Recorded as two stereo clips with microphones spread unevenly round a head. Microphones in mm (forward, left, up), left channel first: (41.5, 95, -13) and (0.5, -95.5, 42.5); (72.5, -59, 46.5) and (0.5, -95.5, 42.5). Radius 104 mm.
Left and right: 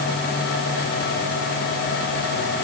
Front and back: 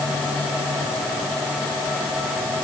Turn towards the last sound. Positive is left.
No sound to turn to.